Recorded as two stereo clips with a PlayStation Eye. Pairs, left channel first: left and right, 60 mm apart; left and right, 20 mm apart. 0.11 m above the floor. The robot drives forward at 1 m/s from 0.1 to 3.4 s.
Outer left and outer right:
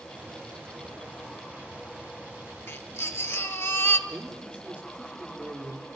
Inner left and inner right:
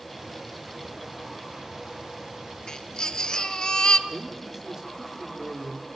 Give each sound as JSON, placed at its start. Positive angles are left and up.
{"t": 2.7, "sound": "a baby crying", "side_deg": 45, "distance_m": 1.8}
{"t": 4.1, "sound": "a man speaking", "side_deg": -20, "distance_m": 5.5}